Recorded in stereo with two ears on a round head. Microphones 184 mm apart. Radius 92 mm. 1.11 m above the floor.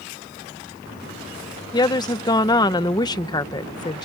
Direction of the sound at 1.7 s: 20° left (ahead or behind).